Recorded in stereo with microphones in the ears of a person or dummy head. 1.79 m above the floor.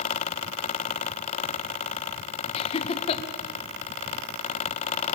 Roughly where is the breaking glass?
I don't hear breaking glass.